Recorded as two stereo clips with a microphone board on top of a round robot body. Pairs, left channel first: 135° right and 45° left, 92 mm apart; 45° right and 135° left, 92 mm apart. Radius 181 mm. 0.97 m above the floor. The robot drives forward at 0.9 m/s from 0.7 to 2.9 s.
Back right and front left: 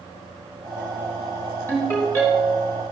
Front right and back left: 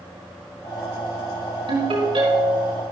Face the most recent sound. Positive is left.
turn(degrees=160)